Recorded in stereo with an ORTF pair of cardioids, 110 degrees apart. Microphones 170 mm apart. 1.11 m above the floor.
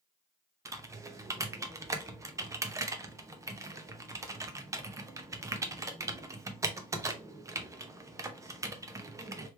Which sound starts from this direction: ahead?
Typing on a keyboard, at 0.7 s.